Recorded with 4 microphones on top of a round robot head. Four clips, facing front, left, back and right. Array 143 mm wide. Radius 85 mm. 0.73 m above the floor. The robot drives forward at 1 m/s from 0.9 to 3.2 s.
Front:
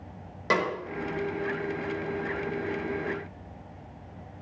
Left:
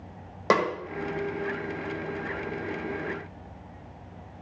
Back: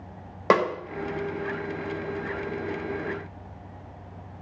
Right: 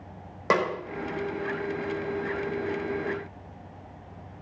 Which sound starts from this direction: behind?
A snare drum, at 0.5 s.